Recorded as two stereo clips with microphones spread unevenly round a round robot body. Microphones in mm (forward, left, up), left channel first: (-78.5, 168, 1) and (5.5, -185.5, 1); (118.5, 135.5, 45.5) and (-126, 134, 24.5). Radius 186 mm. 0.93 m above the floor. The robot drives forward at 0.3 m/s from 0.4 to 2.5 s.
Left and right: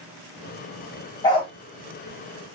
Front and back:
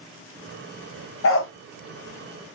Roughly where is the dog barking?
Ahead left.